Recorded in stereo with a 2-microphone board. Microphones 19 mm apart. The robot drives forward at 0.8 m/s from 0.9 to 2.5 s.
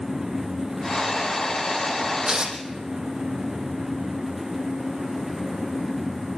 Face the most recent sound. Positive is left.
turn(degrees=-45)  # may be behind; listen again after turning